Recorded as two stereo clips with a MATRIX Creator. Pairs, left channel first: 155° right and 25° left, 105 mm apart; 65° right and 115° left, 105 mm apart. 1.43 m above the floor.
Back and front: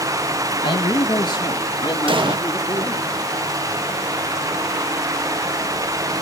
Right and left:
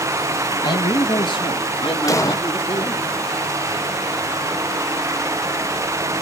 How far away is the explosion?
About 0.5 m.